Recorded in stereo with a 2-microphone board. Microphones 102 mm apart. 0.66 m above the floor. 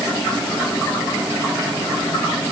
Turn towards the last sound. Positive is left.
No sound to turn to.